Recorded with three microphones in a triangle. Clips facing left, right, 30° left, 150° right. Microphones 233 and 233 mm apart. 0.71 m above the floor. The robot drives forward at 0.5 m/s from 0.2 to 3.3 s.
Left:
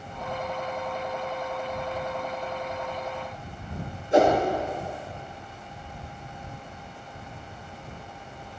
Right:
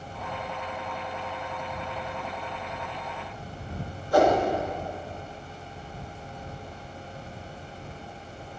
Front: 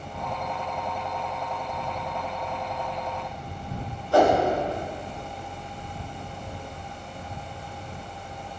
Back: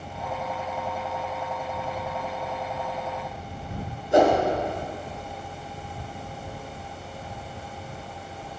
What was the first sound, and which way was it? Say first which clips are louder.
A whoosh: left 1 dB, back 1 dB; 150° left.